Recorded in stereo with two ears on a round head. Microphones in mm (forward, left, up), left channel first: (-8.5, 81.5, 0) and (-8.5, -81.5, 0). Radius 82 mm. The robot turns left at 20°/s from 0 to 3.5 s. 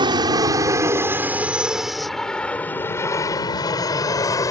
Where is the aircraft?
25° right (ahead or behind); by 4.5 s 20° left (ahead or behind).